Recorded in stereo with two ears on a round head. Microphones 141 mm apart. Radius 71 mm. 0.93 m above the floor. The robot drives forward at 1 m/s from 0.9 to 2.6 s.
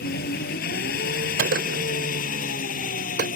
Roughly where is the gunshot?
Right.